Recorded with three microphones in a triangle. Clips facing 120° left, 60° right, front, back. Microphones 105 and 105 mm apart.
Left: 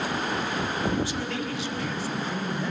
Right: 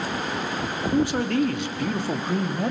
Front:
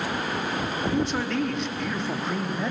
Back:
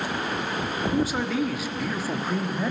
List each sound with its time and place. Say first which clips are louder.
0.9 s a man speaking: right 7 dB, back 1 dB; 95° right, 1.5 m